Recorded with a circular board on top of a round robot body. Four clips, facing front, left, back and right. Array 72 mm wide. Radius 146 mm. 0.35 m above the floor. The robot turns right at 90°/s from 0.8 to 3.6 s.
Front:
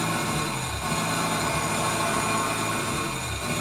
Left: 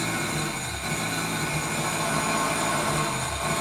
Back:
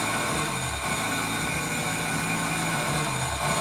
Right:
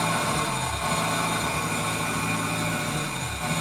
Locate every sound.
0.0 s an engine running: 85° right, 3 m; by 3.6 s 170° left, 3 m